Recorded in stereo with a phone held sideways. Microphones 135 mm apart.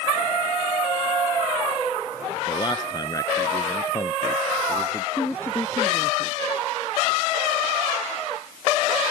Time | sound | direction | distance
2.5 | a man speaking | 35° left (ahead or behind) | ?
5.2 | a woman speaking | 15° left (ahead or behind) | ?